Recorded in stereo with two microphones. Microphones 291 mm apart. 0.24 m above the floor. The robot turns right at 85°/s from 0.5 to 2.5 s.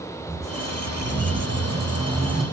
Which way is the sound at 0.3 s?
165° right.